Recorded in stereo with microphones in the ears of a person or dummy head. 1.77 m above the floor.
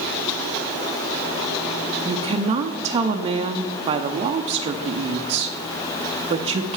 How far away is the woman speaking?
About 0.5 m.